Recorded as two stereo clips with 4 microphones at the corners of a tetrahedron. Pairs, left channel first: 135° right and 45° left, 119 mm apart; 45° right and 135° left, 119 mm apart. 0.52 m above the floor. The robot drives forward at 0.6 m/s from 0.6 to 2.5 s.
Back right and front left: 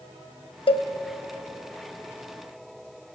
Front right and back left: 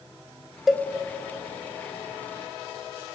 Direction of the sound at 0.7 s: 135° right.